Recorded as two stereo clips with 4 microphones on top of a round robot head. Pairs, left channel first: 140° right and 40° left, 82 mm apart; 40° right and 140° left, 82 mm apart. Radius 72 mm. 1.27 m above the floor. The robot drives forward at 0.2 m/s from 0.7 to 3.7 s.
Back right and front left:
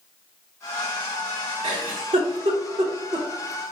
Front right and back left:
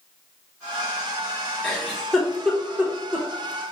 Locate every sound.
1.6 s a giggle: 40° left, 0.6 m; by 3.3 s 75° left, 0.5 m